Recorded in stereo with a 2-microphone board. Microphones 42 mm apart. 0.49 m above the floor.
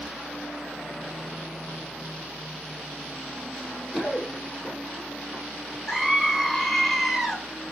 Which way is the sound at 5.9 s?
Centre (ahead or behind).